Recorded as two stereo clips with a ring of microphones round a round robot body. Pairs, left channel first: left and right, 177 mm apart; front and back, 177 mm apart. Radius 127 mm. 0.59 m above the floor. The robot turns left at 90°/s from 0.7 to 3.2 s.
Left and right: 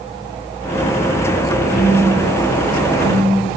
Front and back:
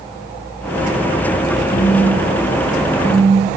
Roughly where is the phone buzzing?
Ahead left.